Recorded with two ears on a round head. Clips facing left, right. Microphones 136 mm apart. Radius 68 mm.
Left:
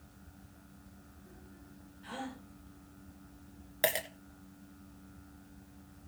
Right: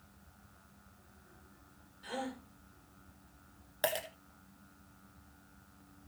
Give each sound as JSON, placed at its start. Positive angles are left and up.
{"t": 2.0, "sound": "a gasp", "side_deg": -45, "distance_m": 4.0}
{"t": 3.8, "sound": "a dropped coin", "side_deg": 10, "distance_m": 1.6}